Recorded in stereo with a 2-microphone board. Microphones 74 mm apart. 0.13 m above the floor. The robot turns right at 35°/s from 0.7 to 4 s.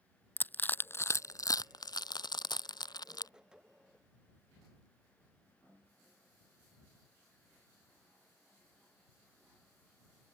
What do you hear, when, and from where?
0.4 s crushing: 25° left (ahead or behind); by 3.3 s 60° left (ahead or behind)